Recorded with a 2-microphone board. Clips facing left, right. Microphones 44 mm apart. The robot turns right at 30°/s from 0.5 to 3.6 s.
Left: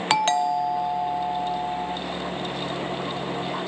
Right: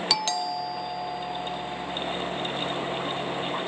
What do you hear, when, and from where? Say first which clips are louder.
0.1 s a doorbell: left 9 dB; 55° left; by 2.0 s 100° left